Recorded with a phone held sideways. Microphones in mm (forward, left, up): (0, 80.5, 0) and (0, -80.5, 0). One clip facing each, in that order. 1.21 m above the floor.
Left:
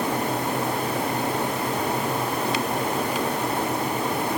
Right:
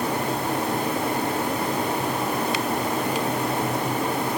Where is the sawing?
I don't hear sawing.